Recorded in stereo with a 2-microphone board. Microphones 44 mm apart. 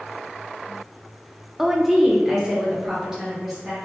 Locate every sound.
1.6 s a woman speaking: 5° right (ahead or behind), 0.6 m; by 3.8 s 15° right (ahead or behind), 2 m